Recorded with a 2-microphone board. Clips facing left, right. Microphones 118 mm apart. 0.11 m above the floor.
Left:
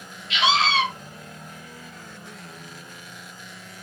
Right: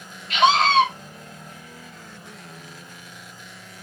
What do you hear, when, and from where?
0.3 s a scream: 45° right (ahead or behind), 2.5 m